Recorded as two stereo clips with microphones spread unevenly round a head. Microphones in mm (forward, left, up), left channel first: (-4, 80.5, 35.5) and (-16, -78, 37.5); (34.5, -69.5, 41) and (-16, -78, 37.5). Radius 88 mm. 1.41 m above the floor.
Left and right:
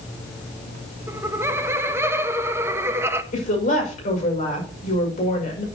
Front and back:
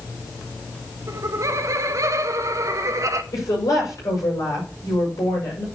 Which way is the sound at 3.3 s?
40° left.